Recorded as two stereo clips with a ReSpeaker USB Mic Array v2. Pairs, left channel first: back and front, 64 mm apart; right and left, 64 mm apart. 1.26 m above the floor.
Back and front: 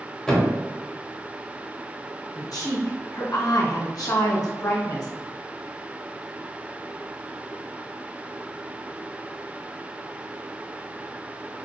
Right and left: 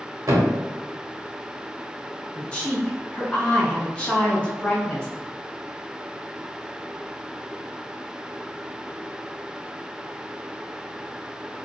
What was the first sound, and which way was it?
A thud, 100° left.